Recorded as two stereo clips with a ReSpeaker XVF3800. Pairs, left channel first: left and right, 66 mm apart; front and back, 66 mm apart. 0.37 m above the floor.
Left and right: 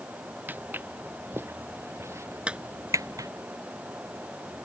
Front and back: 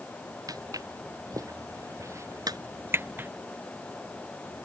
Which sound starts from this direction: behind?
A clap, at 2.5 s.